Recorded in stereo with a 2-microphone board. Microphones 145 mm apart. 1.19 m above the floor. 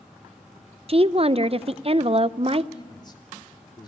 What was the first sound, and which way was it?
A woman speaking, 40° right (ahead or behind).